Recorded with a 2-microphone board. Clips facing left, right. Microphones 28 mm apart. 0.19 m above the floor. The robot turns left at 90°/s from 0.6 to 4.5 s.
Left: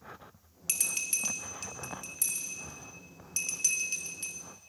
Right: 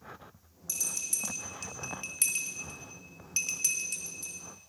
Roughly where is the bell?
Left.